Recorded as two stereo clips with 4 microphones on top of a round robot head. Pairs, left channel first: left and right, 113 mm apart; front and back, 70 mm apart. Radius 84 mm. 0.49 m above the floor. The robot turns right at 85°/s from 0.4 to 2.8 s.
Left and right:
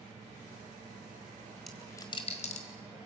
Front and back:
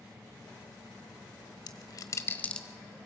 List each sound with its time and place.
1.7 s a dropped coin: straight ahead, 1.5 m; by 2.6 s 85° left, 1.5 m